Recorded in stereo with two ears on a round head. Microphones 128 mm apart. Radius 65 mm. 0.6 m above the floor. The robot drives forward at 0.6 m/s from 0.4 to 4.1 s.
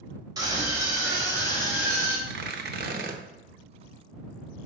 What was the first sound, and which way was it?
A scream, 25° right (ahead or behind).